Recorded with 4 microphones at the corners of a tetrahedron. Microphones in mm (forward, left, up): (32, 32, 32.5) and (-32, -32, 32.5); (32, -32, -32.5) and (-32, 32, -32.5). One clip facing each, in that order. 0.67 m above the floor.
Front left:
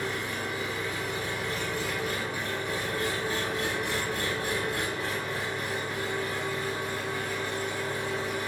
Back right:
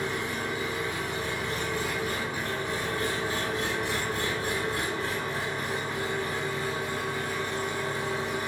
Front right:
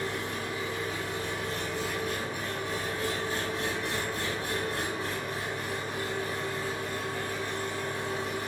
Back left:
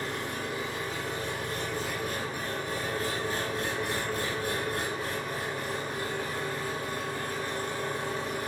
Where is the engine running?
170° left, 1.0 m.